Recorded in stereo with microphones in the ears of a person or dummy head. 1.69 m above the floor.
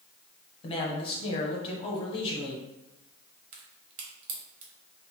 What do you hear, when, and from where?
0.6 s a man speaking: 25° left (ahead or behind), 0.8 m
3.5 s a crack: 45° right (ahead or behind), 0.7 m